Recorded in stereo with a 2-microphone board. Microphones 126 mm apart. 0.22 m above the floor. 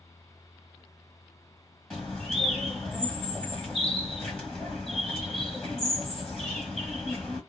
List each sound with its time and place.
1.9 s a bird: 5° left (ahead or behind), 1.4 m